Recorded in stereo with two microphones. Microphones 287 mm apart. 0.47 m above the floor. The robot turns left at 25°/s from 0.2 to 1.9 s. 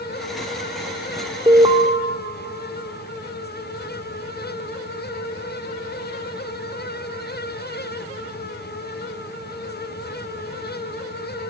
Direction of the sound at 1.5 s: 15° right (ahead or behind).